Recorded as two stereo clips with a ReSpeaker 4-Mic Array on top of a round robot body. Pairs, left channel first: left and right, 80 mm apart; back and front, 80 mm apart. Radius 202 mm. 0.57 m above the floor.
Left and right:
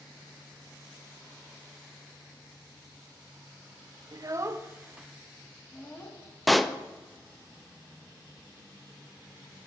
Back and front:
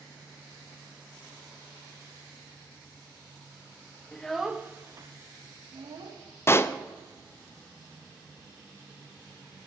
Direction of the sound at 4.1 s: 105° right.